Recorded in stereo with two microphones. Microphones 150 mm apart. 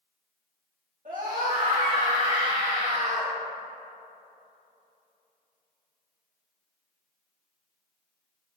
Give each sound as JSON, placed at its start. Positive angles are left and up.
{"t": 1.1, "sound": "a scream", "side_deg": -55, "distance_m": 1.8}